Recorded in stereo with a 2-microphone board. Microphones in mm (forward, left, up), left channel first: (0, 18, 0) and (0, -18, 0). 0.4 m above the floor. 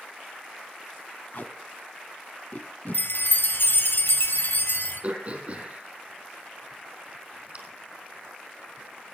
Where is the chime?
70° left (ahead or behind), 2 m.